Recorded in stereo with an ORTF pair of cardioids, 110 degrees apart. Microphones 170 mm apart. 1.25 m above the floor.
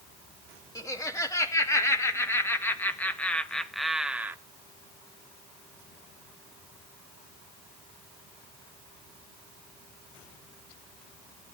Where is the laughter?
20° left, 2.5 m; by 4.4 s 15° right, 0.7 m.